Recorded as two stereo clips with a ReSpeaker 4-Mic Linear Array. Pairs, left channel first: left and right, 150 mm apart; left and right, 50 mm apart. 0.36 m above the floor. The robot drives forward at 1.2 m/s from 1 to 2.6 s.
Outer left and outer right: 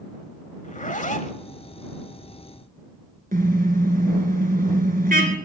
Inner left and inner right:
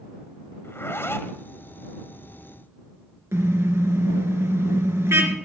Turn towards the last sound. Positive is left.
turn(degrees=-75)  # may be behind; listen again after turning